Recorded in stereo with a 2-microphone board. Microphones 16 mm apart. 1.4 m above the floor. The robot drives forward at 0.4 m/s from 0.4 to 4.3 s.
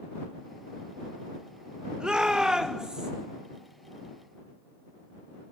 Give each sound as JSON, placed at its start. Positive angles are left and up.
{"t": 2.0, "sound": "a shout", "side_deg": -50, "distance_m": 1.4}